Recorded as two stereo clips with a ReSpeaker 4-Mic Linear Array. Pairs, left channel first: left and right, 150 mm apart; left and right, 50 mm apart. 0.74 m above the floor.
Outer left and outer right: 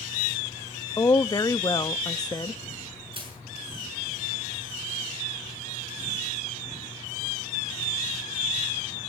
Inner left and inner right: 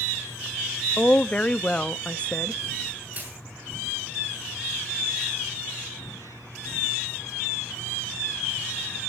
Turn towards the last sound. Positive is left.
turn(degrees=-35)  # may be behind; listen again after turning